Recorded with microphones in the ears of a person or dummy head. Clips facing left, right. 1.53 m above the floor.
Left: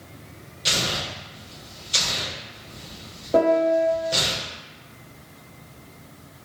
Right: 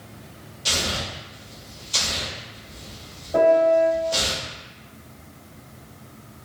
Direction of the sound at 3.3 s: 60° left (ahead or behind).